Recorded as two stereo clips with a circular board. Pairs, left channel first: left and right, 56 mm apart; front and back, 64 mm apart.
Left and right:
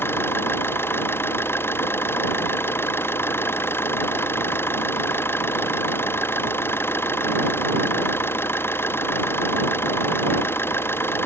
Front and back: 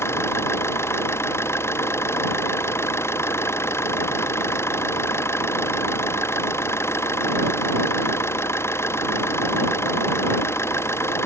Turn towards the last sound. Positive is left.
turn(degrees=45)